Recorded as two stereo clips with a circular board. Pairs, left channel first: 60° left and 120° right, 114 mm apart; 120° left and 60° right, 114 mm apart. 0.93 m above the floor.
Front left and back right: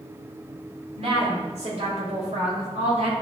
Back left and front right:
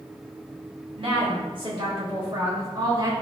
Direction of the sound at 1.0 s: 95° right.